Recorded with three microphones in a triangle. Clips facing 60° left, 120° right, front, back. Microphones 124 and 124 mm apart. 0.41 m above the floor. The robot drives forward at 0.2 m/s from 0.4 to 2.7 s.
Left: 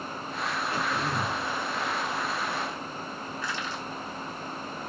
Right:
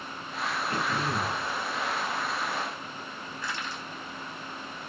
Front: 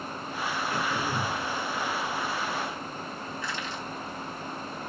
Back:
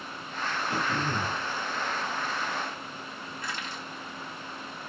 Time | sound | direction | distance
0.7 | throat clearing | 170° right | 2.5 m
3.4 | crushing | 155° right | 1.7 m